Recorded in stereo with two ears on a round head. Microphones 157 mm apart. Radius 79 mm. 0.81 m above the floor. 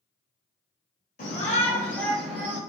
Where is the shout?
45° left (ahead or behind), 1.4 m; by 2.6 s 15° right (ahead or behind), 1.6 m.